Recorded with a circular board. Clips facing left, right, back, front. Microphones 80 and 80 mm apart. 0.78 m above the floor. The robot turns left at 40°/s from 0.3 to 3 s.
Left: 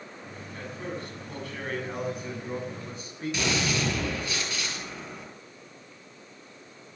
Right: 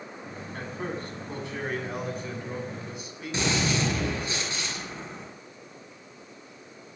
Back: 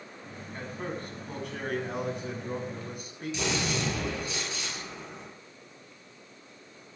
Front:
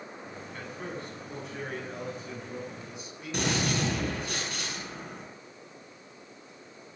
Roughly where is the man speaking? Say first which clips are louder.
Right 2 dB, back 3 dB; behind right.